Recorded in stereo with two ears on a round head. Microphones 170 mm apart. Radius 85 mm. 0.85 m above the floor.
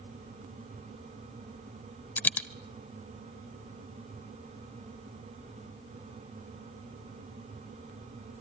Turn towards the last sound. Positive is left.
turn(degrees=10)  # may be behind; listen again after turning